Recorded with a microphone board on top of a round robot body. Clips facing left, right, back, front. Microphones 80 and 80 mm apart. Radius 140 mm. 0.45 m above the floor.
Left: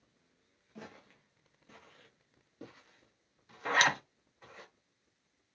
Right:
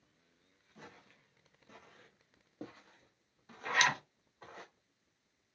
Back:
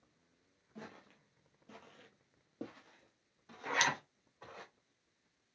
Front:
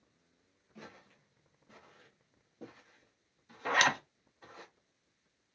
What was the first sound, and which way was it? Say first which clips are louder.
Footsteps: left 5 dB, back 1 dB; 115° left.